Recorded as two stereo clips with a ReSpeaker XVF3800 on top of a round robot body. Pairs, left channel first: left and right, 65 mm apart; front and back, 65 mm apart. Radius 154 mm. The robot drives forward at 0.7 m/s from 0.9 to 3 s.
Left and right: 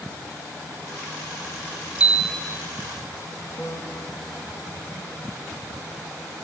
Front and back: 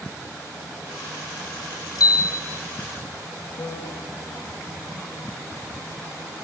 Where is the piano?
40° left, 3 m.